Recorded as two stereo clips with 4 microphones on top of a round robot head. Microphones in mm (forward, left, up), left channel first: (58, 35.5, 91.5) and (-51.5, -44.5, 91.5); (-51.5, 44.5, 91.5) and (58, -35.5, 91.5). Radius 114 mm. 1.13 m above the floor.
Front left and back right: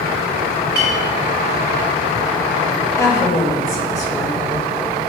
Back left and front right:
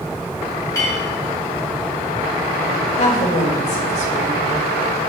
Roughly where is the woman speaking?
Left.